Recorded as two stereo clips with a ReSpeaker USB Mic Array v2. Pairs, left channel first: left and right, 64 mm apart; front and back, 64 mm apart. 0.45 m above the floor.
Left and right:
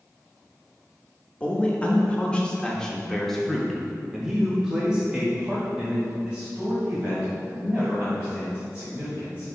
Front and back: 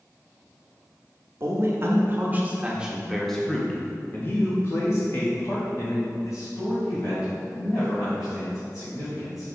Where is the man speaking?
155° left, 1.2 m; by 9.5 s 20° right, 3 m.